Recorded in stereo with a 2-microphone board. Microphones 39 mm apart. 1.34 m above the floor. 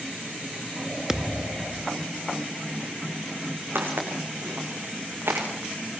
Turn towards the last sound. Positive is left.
turn(degrees=-75)  # may be behind; listen again after turning